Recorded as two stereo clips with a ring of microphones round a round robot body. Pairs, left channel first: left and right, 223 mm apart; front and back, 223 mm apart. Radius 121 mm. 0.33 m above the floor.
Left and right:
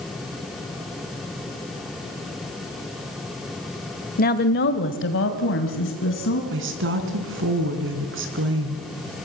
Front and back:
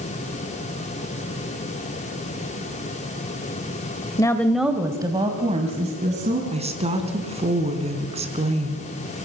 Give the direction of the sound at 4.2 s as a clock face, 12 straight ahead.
10 o'clock.